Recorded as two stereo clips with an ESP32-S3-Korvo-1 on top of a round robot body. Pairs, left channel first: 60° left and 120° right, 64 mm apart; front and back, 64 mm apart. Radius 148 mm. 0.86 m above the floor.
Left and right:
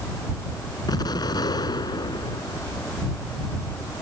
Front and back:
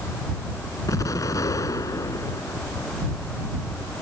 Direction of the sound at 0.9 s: 40° left.